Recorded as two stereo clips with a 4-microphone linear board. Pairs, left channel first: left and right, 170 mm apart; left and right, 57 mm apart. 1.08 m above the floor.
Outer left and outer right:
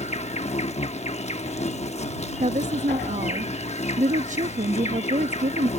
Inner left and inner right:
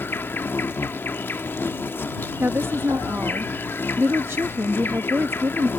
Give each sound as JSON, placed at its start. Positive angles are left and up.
{"t": 0.0, "sound": "an insect", "side_deg": 40}
{"t": 2.4, "sound": "a woman speaking", "side_deg": -45}